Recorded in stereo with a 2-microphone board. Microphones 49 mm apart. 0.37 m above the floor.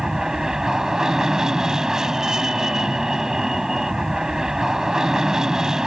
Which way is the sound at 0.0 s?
10° right (ahead or behind).